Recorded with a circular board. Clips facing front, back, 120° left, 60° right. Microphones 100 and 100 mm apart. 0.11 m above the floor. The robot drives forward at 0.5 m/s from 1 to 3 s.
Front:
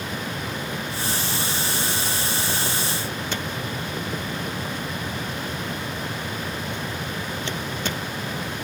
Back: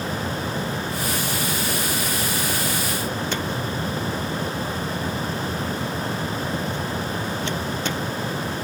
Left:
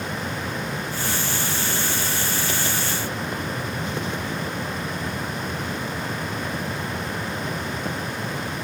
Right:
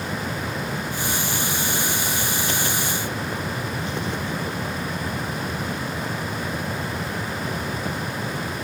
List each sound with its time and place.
Only background noise.